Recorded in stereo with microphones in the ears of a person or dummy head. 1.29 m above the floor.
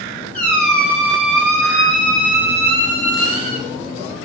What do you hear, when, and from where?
0.3 s a squeak: 5° left (ahead or behind), 0.9 m